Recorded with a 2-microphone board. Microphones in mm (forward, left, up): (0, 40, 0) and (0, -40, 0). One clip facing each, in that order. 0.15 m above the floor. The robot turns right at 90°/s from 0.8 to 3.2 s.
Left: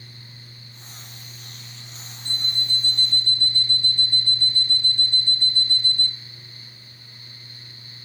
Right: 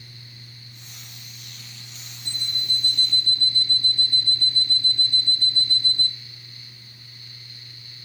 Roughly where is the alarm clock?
Behind right.